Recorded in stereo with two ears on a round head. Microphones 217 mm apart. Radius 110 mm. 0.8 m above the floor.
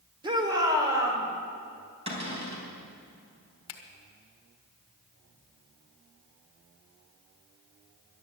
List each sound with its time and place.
0.2 s a shout: 20° right (ahead or behind), 2 m; by 1.2 s 15° right (ahead or behind), 3 m
2.1 s a cupboard door: 25° right (ahead or behind), 3.5 m
3.7 s a finger snap: 70° left (ahead or behind), 1.7 m